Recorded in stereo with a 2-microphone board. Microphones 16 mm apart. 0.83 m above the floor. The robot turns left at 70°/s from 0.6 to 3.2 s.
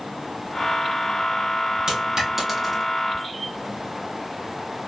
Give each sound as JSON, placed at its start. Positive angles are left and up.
{"t": 1.9, "sound": "a dropped coin", "side_deg": -45, "distance_m": 1.8}